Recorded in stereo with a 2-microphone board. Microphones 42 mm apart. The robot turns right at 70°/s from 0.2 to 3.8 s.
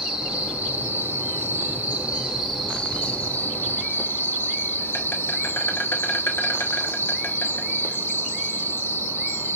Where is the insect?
165° right, 0.8 m; by 9.6 s 90° left, 0.8 m.